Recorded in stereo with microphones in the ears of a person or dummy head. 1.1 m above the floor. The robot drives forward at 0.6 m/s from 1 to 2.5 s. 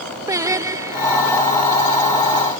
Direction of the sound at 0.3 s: 20° right (ahead or behind).